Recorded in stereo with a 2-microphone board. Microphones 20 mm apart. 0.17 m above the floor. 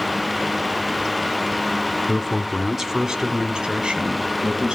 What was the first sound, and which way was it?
A man speaking, 25° left (ahead or behind).